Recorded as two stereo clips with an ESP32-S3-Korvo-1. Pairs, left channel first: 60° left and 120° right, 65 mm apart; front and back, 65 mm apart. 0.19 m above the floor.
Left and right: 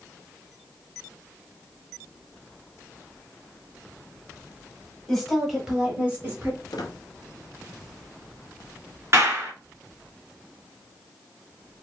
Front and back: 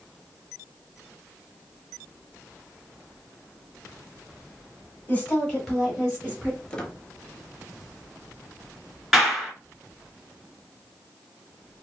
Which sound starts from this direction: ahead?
A woman speaking, at 5.1 s.